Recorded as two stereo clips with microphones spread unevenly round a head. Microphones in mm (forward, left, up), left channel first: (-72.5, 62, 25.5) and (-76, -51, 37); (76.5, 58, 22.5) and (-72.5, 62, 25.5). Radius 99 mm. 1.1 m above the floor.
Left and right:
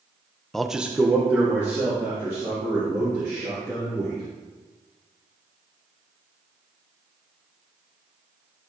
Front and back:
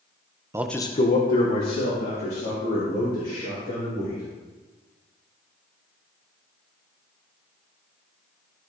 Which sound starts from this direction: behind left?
A man speaking, at 0.5 s.